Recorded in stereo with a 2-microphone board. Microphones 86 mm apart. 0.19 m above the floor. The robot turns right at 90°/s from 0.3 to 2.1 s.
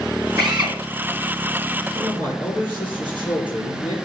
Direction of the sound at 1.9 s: 65° left (ahead or behind).